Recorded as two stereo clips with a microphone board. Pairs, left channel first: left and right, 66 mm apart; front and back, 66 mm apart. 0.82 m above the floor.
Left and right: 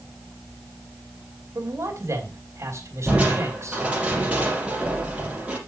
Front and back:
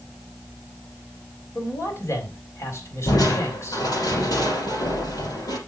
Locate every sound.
1.6 s a man speaking: 45° right, 3.5 m
3.1 s crushing: 15° right, 5 m